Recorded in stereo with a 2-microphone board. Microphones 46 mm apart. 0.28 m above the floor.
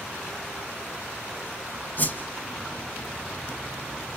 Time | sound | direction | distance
2.0 | a whoosh | 40° left (ahead or behind) | 1.0 m